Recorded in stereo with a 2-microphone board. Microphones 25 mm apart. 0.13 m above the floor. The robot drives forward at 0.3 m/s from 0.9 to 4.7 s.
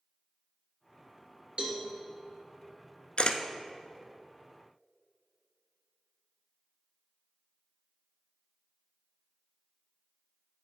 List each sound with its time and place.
1.6 s a cowbell: 50° right (ahead or behind), 2.0 m
3.2 s a camera shutter: 50° left (ahead or behind), 0.5 m